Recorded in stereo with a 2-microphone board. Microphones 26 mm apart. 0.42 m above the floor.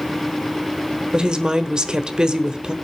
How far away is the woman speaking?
About 1.3 m.